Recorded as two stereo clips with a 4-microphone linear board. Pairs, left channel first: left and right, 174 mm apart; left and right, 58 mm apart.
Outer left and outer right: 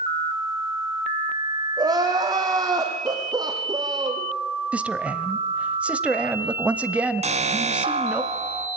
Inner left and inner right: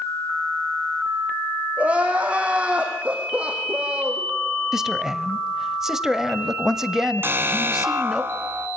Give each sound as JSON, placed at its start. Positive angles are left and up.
{"t": 1.8, "sound": "crying", "side_deg": -20, "distance_m": 5.0}
{"t": 4.7, "sound": "a man speaking", "side_deg": -5, "distance_m": 1.0}
{"t": 7.2, "sound": "an alarm", "side_deg": -40, "distance_m": 2.0}